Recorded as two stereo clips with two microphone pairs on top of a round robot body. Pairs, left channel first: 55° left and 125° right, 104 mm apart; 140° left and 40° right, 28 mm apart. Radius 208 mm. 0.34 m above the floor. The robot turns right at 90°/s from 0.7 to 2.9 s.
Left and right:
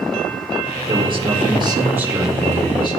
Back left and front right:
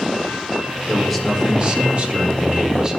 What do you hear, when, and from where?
0.9 s a man speaking: 160° right, 2 m; by 3.0 s 25° left, 2 m